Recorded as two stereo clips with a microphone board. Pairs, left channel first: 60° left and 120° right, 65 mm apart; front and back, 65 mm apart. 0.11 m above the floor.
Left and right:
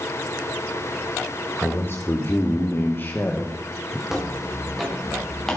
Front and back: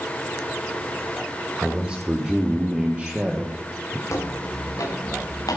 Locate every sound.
1.6 s a man speaking: 100° left, 3.5 m; by 4.0 s 110° left, 2 m
4.1 s footsteps: 40° right, 7 m; by 5.6 s 20° right, 7.5 m